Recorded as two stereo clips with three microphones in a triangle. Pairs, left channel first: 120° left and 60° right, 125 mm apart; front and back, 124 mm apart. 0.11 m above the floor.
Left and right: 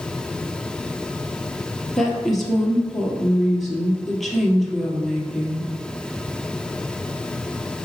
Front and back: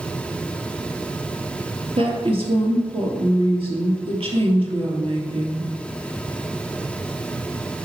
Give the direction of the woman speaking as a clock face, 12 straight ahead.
5 o'clock.